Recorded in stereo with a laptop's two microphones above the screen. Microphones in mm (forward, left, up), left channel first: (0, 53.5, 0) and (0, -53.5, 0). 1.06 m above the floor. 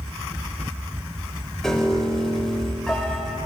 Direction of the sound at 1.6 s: 5° left (ahead or behind).